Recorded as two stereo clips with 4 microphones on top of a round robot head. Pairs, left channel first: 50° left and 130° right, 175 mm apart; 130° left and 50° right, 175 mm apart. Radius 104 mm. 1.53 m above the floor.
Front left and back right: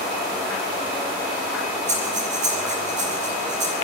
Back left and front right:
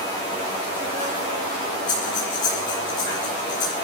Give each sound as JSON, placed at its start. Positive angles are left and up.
{"t": 1.9, "sound": "breathing", "azimuth_deg": 180, "distance_m": 8.5}